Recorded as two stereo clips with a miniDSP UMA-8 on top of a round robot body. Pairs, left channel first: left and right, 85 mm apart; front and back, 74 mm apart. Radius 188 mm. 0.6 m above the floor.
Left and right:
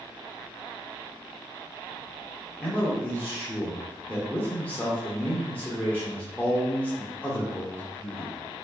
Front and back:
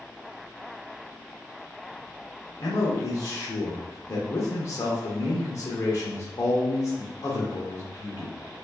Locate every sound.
2.6 s a man speaking: 25° left, 1.3 m